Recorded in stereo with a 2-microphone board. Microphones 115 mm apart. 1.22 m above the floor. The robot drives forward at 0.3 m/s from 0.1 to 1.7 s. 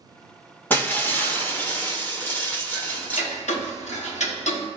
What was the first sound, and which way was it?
Breaking glass, 20° left (ahead or behind).